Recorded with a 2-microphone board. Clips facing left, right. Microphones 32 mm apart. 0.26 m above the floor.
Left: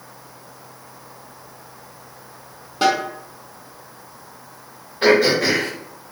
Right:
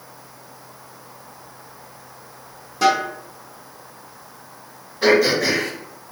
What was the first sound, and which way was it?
A snare drum, 45° left (ahead or behind).